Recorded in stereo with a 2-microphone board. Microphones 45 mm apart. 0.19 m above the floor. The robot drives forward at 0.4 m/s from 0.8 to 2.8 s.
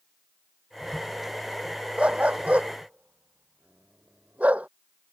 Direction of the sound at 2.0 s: 30° right (ahead or behind).